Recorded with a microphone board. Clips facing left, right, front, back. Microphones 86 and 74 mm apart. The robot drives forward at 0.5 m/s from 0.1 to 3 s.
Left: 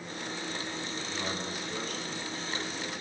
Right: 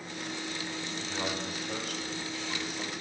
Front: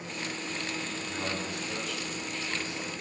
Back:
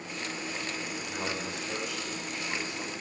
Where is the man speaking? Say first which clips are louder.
Right 3 dB, even; 95° right, 4 m; by 2.9 s 105° right, 4.5 m.